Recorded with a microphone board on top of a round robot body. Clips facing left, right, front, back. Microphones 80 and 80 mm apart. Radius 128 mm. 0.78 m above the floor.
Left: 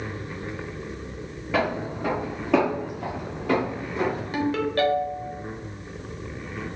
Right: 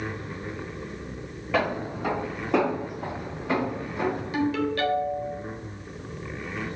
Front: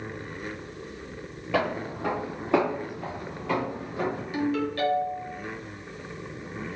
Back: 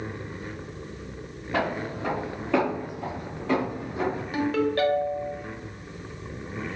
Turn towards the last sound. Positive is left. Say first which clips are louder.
# left 2 dB, back 4 dB
turn(degrees=140)